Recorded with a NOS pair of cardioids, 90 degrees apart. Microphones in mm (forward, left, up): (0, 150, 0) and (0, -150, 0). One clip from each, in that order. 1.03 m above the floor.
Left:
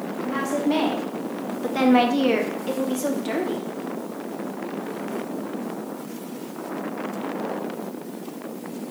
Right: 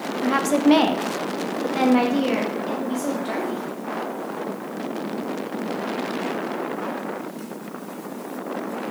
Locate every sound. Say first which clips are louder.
0.2 s a woman speaking: right 6 dB; 65° right, 0.6 m; by 3.6 s 40° left, 1.6 m